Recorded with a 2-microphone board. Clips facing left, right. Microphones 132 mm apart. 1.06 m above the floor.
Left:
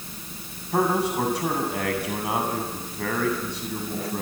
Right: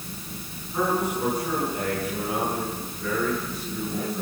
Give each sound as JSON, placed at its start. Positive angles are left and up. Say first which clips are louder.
{"t": 0.7, "sound": "a man speaking", "louder": "left 3 dB", "side_deg": 85, "distance_m": 7.0}